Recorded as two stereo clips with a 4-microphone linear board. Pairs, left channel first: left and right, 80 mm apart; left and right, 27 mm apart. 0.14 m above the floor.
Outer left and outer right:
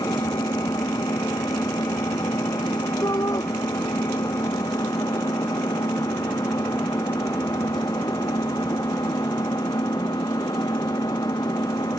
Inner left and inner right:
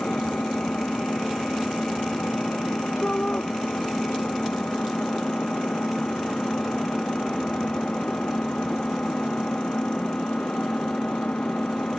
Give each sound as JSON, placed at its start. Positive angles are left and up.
{"t": 0.0, "sound": "an engine running", "side_deg": 55}
{"t": 3.0, "sound": "a shout", "side_deg": 50}